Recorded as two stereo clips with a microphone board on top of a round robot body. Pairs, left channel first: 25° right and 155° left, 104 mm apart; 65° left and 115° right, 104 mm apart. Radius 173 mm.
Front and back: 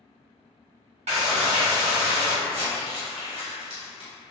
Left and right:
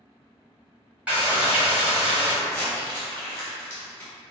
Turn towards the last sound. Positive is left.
turn(degrees=135)